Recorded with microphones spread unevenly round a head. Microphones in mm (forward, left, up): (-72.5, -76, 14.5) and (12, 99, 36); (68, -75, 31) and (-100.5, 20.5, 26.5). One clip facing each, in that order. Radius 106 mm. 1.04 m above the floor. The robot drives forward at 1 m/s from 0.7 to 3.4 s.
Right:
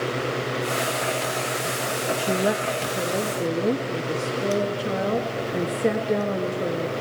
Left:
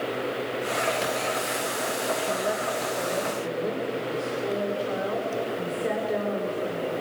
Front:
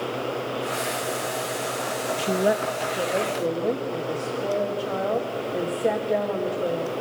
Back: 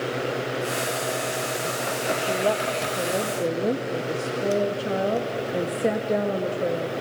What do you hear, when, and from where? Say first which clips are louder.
2.2 s a woman speaking: right 4 dB, front 4 dB; 75° right, 0.9 m; by 6.9 s 140° right, 1.3 m